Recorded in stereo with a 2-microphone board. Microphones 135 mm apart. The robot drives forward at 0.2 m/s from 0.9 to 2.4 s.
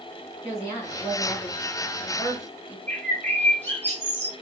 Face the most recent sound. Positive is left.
turn(degrees=15)  # may be behind; listen again after turning